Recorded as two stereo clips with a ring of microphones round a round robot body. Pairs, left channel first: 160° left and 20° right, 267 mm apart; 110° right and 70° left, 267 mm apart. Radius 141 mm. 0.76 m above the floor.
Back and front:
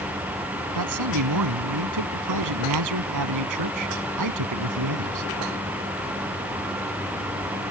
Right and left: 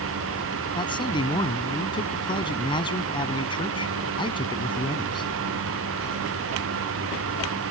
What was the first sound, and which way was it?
A man speaking, 40° right.